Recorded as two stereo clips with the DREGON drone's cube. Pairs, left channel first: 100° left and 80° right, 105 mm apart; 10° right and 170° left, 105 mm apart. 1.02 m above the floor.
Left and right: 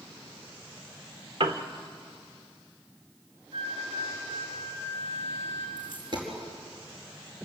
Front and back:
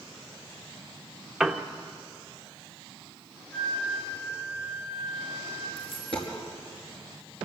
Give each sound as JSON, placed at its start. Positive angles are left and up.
{"t": 1.4, "sound": "a piano", "azimuth_deg": -105, "distance_m": 1.2}
{"t": 3.5, "sound": "a flute", "azimuth_deg": -80, "distance_m": 4.5}
{"t": 5.8, "sound": "a dropped coin", "azimuth_deg": -40, "distance_m": 5.0}